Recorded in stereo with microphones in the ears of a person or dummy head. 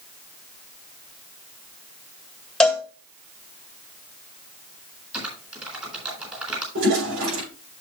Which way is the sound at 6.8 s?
70° right (ahead or behind).